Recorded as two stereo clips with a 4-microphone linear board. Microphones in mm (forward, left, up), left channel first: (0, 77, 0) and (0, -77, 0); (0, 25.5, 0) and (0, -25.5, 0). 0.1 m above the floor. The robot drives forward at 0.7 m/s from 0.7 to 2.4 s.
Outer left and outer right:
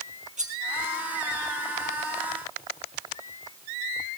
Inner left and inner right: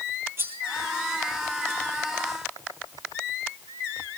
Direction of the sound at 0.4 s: 50° right (ahead or behind).